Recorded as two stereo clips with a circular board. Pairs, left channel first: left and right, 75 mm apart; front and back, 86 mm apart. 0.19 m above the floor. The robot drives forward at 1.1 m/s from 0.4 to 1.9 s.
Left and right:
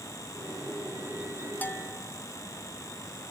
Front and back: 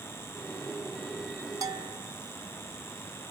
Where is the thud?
No thud in this recording.